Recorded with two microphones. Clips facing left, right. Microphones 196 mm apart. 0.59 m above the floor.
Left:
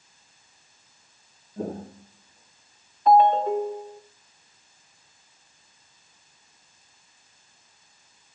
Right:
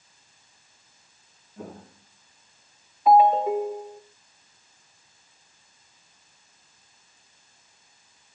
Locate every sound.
1.6 s footsteps: 35° left (ahead or behind), 0.6 m; by 3.0 s 45° left (ahead or behind), 2 m
3.1 s a ringtone: 5° right (ahead or behind), 1.1 m